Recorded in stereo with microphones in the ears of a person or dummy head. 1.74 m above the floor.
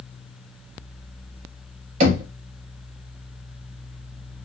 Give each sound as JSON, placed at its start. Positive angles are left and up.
{"t": 2.0, "sound": "knocking", "side_deg": -40, "distance_m": 0.5}